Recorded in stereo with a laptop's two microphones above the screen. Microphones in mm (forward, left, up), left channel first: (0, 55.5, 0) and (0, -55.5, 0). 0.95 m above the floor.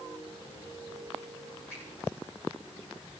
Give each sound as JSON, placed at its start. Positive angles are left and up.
{"t": 1.7, "sound": "a finger snap", "side_deg": 25, "distance_m": 9.0}